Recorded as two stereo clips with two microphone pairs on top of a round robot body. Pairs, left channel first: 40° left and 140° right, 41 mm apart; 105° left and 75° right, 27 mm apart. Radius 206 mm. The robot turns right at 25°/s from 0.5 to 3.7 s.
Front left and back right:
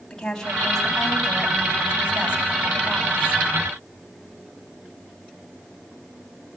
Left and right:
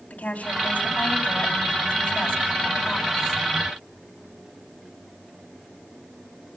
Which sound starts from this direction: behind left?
A woman speaking, at 0.1 s.